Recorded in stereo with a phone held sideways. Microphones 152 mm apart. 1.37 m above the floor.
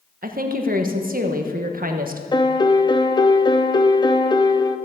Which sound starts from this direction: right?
A woman speaking, at 0.2 s.